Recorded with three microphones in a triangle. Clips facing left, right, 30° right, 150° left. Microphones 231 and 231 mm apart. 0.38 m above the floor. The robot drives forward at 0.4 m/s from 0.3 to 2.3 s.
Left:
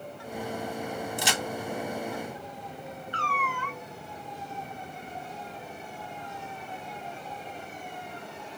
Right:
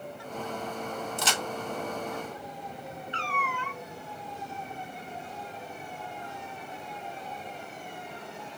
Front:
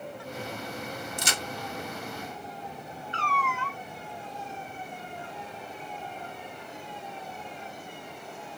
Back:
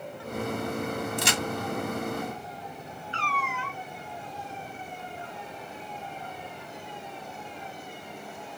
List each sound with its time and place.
1.2 s a crack: 165° left, 1.0 m
3.1 s a cat meowing: 150° right, 1.4 m